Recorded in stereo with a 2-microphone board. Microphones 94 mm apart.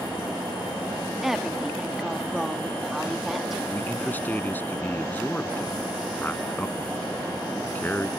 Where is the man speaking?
20° left (ahead or behind).